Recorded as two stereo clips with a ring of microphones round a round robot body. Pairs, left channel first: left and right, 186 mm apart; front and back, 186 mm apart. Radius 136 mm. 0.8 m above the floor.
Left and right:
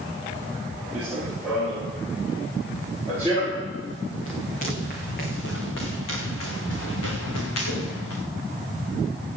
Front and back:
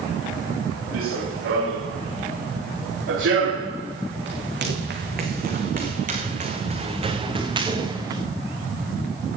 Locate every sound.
0.9 s running footsteps: 175° right, 6 m; by 8.2 s 110° left, 4.5 m